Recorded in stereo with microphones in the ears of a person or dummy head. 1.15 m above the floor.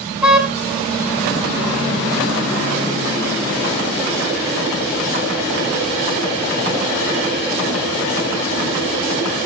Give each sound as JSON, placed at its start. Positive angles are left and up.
{"t": 0.2, "sound": "a car horn", "side_deg": -5, "distance_m": 4.0}